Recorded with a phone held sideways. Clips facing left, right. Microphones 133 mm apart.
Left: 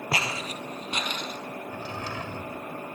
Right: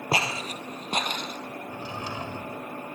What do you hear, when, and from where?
0.1 s footsteps: 25° right (ahead or behind), 1.7 m; by 1.4 s 45° right (ahead or behind), 2.5 m
1.7 s a drawer: 15° right (ahead or behind), 2.5 m